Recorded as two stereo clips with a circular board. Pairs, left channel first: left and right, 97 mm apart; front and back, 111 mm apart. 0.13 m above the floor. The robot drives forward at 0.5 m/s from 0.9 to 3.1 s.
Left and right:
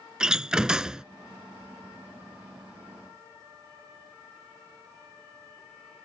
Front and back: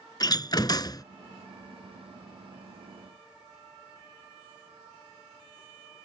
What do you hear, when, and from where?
0.2 s a door slam: 10° right; by 1.0 s 15° right